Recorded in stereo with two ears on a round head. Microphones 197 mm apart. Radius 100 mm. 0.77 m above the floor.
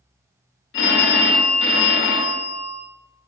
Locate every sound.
0.7 s a phone ringing: 60° left (ahead or behind), 0.6 m